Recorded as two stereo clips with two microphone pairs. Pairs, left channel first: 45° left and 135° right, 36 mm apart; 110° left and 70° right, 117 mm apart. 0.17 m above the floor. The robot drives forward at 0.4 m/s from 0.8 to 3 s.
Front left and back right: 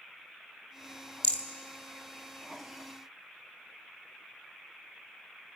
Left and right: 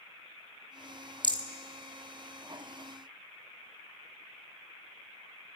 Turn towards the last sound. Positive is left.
turn(degrees=-50)